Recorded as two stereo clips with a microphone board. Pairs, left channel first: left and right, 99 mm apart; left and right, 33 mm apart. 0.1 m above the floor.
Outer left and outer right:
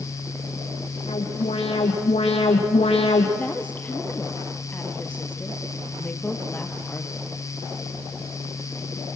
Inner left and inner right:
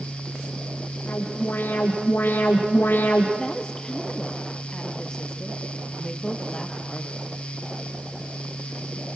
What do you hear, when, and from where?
1.1 s an alarm: 70° left (ahead or behind), 4 m
3.4 s a woman speaking: 15° left (ahead or behind), 2 m